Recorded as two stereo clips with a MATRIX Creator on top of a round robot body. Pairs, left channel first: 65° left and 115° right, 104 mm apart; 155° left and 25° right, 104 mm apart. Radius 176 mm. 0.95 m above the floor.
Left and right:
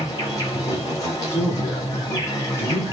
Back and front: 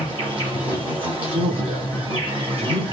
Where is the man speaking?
Straight ahead, 3.5 m.